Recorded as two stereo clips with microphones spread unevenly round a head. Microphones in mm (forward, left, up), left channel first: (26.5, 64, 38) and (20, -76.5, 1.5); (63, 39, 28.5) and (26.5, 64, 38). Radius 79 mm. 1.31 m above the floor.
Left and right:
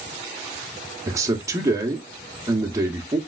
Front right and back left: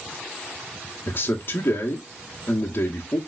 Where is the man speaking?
35° right, 0.7 m.